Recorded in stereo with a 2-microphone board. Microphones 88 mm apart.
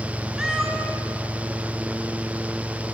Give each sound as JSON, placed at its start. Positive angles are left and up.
{"t": 0.4, "sound": "a cat meowing", "side_deg": -10, "distance_m": 1.1}